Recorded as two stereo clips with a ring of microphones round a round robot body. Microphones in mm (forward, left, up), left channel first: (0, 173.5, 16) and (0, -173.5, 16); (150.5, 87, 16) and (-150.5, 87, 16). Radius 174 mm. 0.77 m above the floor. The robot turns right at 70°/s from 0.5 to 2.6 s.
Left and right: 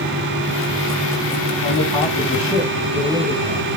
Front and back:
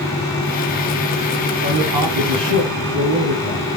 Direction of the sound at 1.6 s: 130° left.